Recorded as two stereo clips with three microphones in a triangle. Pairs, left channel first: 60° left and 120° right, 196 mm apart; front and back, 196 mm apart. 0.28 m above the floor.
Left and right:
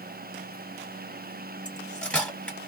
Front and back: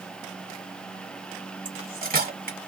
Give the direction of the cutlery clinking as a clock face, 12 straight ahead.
7 o'clock.